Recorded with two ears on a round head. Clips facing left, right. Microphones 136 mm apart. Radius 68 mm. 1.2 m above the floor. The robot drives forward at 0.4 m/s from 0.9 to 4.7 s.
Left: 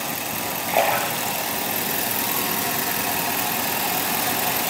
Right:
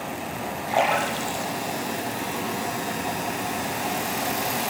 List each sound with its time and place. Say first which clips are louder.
0.7 s a splash: left 1 dB; 20° left (ahead or behind), 8 m